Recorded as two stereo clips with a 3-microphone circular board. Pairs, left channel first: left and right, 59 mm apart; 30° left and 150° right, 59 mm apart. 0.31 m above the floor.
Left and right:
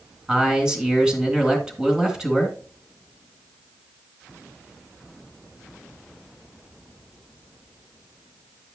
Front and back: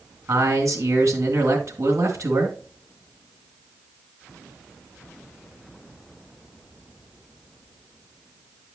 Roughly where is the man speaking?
Behind.